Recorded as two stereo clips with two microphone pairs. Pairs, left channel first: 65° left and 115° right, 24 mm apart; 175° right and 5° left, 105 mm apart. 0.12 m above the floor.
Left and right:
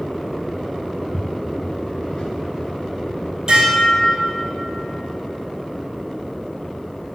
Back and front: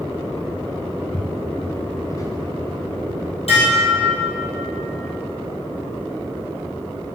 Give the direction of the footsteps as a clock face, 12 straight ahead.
8 o'clock.